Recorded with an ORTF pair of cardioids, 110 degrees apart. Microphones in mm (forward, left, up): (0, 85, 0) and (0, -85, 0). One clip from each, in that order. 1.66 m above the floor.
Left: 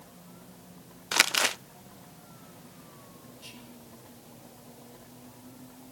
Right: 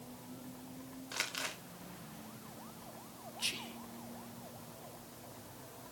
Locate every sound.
1.1 s crumpling: 70° left, 0.6 m
3.4 s whispering: 65° right, 0.8 m